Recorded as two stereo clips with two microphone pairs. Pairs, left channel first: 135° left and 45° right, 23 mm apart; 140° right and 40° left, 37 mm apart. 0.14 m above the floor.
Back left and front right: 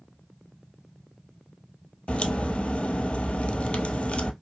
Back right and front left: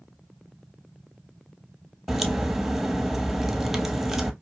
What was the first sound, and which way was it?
A crack, 125° left.